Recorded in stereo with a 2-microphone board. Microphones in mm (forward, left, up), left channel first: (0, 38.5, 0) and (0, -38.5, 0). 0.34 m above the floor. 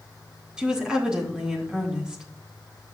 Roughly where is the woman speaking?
Centre.